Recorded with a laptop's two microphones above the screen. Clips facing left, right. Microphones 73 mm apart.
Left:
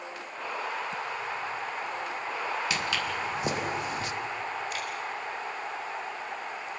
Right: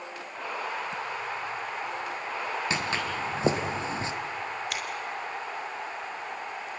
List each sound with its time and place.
2.7 s footsteps: 30° right (ahead or behind), 3 m; by 4.1 s 25° right (ahead or behind), 2.5 m
4.7 s scissors: 80° right, 3.5 m